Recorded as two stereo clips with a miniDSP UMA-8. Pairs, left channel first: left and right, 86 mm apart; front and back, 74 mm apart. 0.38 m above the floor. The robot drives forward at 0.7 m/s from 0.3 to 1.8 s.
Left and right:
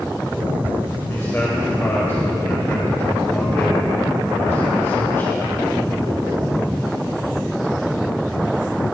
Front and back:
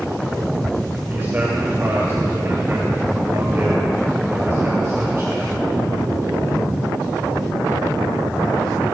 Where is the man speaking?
130° left, 1.9 m; by 5.6 s 145° left, 2 m.